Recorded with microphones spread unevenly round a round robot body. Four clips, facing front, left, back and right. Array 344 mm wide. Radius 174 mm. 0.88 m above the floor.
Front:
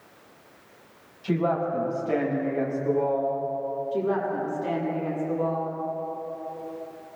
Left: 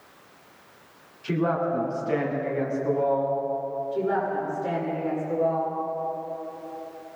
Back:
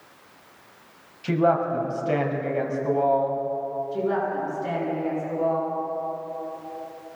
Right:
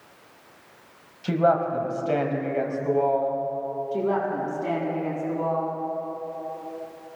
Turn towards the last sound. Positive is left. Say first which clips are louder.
# right 1 dB, back 1 dB
turn(degrees=-70)